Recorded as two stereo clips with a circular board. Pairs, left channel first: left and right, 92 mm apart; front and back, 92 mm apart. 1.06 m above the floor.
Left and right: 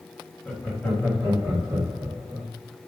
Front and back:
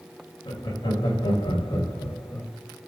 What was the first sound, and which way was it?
Laughter, straight ahead.